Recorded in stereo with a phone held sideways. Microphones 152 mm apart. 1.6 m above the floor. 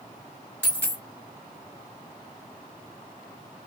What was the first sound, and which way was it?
A dropped coin, 15° right (ahead or behind).